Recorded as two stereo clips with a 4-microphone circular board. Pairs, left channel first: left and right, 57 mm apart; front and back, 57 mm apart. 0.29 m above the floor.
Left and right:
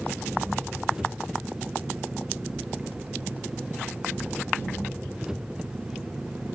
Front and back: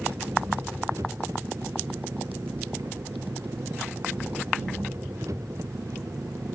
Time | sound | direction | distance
0.0 | an engine running | 165° right | ?